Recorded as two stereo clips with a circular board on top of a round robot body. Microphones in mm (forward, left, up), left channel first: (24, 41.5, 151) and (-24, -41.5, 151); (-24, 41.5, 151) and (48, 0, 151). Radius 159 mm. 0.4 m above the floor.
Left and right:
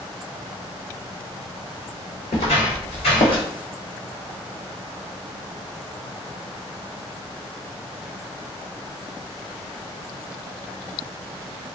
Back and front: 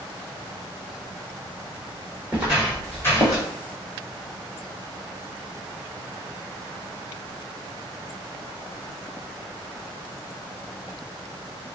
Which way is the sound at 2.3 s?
40° left.